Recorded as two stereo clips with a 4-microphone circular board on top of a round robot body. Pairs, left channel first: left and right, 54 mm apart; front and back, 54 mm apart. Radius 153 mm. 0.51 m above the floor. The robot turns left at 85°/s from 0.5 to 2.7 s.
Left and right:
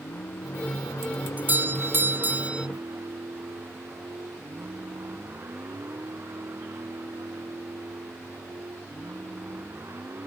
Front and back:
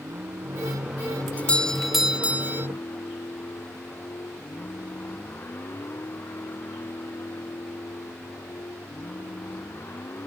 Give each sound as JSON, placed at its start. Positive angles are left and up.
{"t": 0.0, "sound": "a vehicle", "azimuth_deg": 135}
{"t": 1.4, "sound": "a doorbell", "azimuth_deg": -45}